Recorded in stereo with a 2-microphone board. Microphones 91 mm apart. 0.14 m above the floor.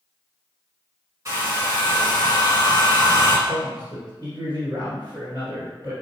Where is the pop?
I don't hear a pop.